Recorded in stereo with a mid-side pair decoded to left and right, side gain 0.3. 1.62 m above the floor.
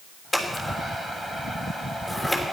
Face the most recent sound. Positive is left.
turn(degrees=25)